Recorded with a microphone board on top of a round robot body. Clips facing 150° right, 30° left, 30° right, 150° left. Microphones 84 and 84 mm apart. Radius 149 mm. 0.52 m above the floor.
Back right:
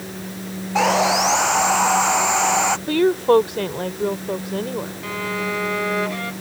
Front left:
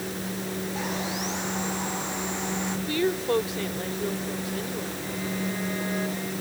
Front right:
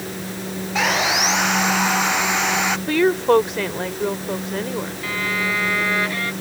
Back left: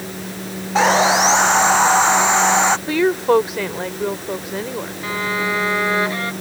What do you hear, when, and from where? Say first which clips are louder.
0.8 s sawing: back right 19 dB, back left 7 dB; 150° right
2.9 s a woman speaking: back right 9 dB, front right 4 dB; 125° right
5.0 s a violin: back right 6 dB, back left 4 dB; 145° right